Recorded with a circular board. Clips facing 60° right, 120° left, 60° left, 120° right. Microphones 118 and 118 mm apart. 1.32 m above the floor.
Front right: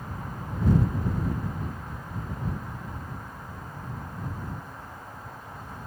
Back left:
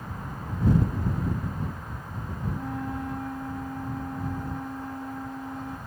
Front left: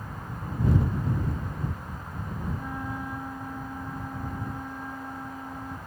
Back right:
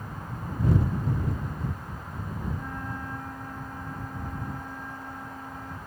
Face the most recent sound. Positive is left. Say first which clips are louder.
# back left 6 dB, front left 2 dB
turn(degrees=140)